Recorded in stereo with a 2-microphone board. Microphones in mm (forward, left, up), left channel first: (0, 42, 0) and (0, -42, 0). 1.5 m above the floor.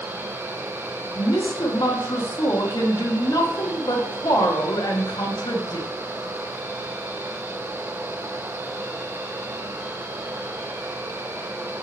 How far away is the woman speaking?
About 1.4 m.